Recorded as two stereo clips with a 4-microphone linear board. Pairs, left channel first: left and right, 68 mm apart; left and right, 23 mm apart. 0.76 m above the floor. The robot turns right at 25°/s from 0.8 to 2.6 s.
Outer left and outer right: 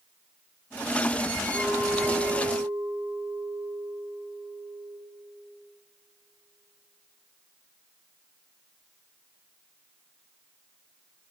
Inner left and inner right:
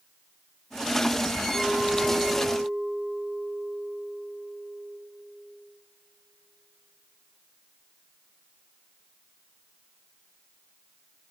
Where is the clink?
65° right (ahead or behind), 2.5 m; by 4.9 s 40° right (ahead or behind), 2.5 m.